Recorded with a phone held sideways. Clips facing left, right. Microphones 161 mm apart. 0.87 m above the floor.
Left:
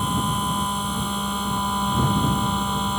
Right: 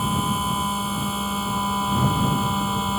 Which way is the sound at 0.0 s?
5° right (ahead or behind).